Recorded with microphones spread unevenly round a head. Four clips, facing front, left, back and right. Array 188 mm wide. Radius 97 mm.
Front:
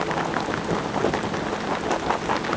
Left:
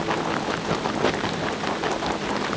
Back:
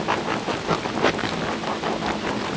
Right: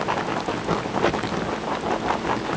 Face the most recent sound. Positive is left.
No sound to turn to.